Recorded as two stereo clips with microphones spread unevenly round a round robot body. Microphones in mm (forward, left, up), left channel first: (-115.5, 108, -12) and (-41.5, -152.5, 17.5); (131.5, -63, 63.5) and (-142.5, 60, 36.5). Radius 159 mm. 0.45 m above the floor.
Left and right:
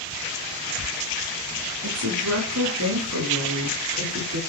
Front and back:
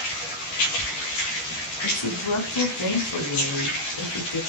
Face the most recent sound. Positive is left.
turn(degrees=-20)